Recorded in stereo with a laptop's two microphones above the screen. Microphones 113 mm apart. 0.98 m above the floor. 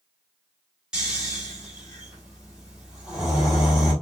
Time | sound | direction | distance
0.9 | snoring | 5° right (ahead or behind) | 1.4 m